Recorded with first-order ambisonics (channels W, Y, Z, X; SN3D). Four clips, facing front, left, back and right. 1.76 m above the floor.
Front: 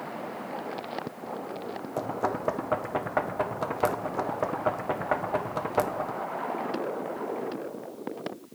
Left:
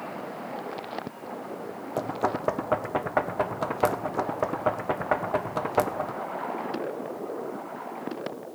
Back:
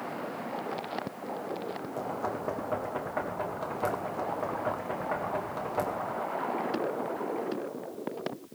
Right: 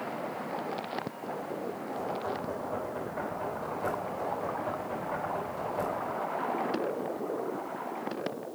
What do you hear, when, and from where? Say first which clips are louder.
2.0 s knocking: left 8 dB, front 5 dB; 65° left, 1.3 m